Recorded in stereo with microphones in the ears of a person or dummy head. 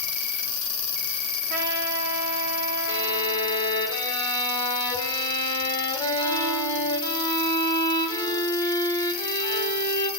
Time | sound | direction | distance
0.0 | an insect | 35° left (ahead or behind) | 0.7 m
1.5 | a trumpet | 50° right (ahead or behind) | 2.5 m
2.9 | a violin | 20° left (ahead or behind) | 1.6 m